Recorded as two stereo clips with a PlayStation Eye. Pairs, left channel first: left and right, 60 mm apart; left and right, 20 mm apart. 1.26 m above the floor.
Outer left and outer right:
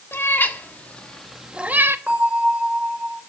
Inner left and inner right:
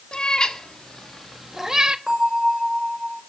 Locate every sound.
0.1 s a cat meowing: 40° left (ahead or behind), 1.9 m; by 2.0 s 40° right (ahead or behind), 1.0 m
2.1 s a bell: 25° right (ahead or behind), 6.5 m